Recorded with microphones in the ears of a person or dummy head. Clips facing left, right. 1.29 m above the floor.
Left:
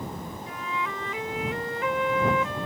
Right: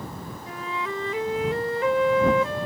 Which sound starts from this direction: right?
A flute, at 0.5 s.